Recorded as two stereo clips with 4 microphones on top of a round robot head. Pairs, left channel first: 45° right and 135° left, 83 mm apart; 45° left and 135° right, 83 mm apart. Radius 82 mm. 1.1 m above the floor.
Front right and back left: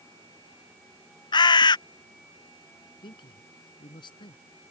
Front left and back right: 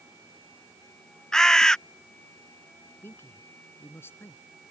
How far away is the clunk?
I don't hear a clunk.